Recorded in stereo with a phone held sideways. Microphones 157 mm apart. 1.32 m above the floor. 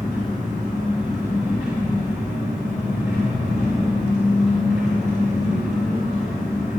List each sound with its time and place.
0.0 s an engine running: 15° right (ahead or behind), 1.2 m